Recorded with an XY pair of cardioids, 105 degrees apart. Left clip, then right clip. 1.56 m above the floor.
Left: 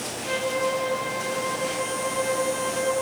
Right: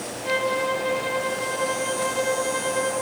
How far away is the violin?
About 6.5 m.